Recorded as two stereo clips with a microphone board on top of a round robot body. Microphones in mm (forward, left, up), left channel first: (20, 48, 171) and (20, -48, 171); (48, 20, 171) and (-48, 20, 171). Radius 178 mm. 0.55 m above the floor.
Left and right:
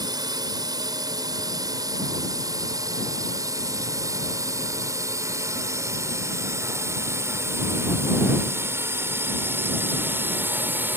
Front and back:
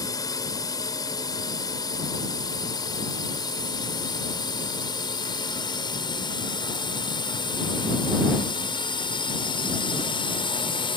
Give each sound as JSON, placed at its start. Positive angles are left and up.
{"t": 0.0, "sound": "a drone", "azimuth_deg": -50}